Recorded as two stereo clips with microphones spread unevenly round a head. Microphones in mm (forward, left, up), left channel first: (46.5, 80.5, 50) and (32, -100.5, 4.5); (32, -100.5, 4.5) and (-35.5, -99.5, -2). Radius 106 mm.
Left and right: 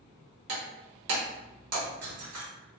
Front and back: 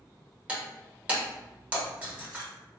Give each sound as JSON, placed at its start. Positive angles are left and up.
{"t": 0.5, "sound": "breaking glass", "azimuth_deg": -110, "distance_m": 1.5}